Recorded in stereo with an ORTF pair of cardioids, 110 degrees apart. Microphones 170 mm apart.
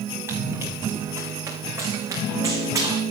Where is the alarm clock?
No alarm clock in this recording.